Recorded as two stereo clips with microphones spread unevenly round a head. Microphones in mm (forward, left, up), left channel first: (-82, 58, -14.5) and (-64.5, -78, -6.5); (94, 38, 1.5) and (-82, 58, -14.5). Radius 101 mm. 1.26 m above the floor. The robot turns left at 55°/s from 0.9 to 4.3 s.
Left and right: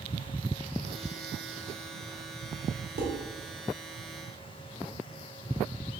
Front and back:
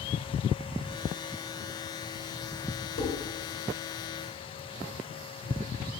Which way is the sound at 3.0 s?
55° right.